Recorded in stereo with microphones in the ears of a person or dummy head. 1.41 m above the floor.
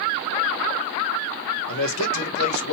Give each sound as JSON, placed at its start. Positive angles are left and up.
{"t": 1.7, "sound": "a man speaking", "side_deg": 75, "distance_m": 1.5}